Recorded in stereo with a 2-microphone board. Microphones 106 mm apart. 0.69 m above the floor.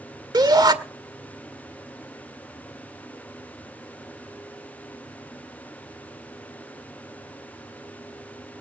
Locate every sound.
0.3 s a shout: 40° right (ahead or behind), 2 m